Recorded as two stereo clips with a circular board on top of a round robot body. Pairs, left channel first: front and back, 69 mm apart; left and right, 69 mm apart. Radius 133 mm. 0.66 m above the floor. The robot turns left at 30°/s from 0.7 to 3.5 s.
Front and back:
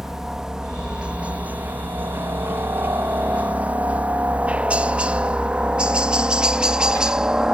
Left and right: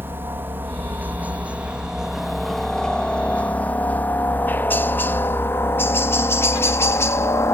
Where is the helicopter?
100° right; by 7.5 s 105° left.